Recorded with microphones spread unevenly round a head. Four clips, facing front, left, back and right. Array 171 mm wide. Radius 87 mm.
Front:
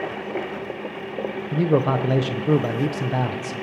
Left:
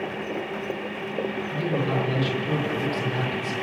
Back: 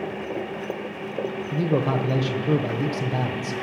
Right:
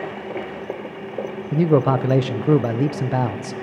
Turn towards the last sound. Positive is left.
turn(degrees=-75)